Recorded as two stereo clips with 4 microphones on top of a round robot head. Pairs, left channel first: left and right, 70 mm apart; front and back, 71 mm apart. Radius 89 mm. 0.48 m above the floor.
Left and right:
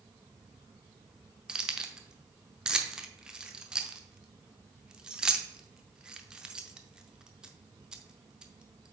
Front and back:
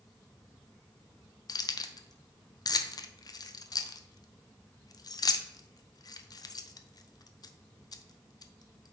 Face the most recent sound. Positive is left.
turn(degrees=-15)